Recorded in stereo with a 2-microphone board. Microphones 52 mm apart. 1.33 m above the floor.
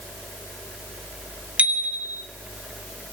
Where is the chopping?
I don't hear chopping.